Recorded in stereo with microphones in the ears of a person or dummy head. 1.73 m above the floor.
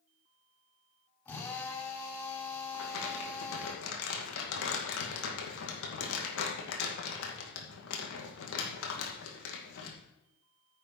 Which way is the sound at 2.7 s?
75° left (ahead or behind).